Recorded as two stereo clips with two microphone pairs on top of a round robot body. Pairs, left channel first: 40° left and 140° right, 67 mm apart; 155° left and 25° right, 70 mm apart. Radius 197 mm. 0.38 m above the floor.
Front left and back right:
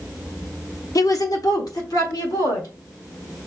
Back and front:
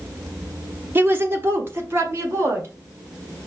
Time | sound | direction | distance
0.9 | a woman speaking | 25° left | 1.2 m